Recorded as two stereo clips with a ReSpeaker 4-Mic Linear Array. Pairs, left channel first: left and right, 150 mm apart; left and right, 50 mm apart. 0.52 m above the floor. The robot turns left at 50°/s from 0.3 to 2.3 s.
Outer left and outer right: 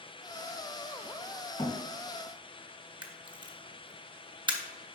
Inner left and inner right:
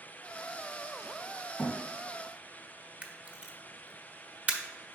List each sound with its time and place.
1.6 s a thud: 40° left (ahead or behind), 1.8 m; by 1.8 s 35° left (ahead or behind), 1.8 m
3.0 s a camera shutter: 30° right (ahead or behind), 1.0 m